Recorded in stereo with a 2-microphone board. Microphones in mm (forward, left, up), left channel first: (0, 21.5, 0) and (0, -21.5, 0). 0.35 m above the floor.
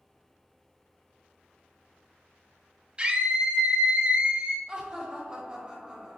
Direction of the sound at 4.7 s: 25° right (ahead or behind).